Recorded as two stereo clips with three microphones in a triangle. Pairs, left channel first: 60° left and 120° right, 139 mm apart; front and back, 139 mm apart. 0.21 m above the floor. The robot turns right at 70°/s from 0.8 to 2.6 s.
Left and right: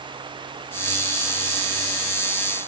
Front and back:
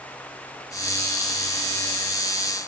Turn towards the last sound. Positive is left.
No sound to turn to.